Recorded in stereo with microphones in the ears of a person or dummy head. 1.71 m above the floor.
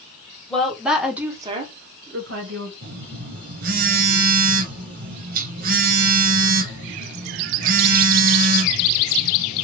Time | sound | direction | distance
0.5 | a woman speaking | 15° left (ahead or behind) | 1.2 m
2.8 | a phone buzzing | 55° right (ahead or behind) | 0.9 m